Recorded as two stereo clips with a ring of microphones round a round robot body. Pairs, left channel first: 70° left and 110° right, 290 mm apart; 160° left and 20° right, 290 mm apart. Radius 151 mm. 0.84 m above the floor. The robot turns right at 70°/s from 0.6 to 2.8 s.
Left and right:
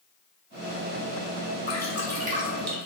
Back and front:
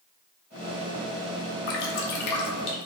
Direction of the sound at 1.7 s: 140° left.